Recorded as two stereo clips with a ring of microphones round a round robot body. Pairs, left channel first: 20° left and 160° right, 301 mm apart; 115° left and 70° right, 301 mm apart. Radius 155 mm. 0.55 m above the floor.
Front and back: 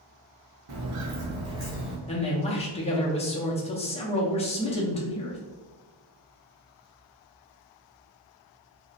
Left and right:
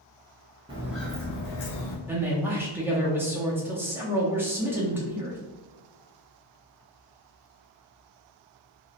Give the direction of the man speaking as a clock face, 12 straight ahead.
12 o'clock.